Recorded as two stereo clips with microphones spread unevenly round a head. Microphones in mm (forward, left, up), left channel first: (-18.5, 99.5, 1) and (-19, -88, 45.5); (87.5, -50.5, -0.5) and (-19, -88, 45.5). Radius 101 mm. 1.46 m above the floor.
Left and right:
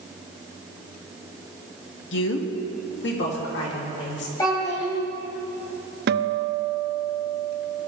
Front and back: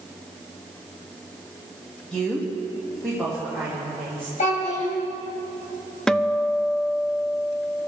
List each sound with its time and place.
2.1 s a woman speaking: 110° left, 1.6 m; by 4.3 s 115° left, 5 m
4.4 s a child speaking: 10° left, 5 m
6.1 s a guitar: 55° right, 0.6 m